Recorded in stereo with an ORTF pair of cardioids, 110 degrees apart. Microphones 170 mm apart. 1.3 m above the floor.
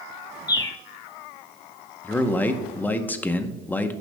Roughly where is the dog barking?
No dog barking in this recording.